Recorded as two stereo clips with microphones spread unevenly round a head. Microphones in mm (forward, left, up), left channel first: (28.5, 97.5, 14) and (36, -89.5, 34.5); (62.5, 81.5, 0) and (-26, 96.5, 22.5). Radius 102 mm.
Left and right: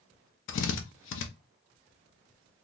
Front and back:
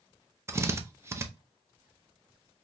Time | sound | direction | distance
0.5 | a drill | 105° left | 0.7 m